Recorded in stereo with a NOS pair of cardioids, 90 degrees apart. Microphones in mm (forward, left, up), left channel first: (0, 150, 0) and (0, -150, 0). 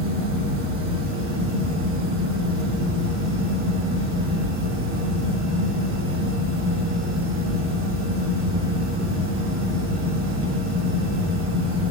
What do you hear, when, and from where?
0.0 s a fan: 45° right, 3 m